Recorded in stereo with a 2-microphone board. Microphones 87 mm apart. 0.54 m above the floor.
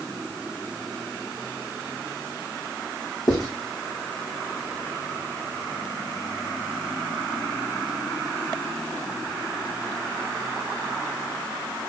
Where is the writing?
50° left (ahead or behind), 5 m.